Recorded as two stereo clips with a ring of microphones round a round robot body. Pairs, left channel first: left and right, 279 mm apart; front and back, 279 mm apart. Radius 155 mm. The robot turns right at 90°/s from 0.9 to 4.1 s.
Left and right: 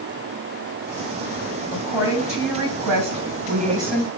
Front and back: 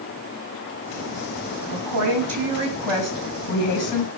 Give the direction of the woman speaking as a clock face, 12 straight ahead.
7 o'clock.